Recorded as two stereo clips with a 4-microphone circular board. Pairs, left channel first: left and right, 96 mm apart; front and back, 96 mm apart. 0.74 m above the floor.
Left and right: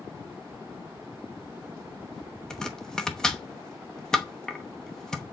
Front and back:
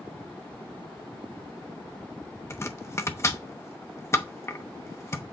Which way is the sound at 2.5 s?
15° left.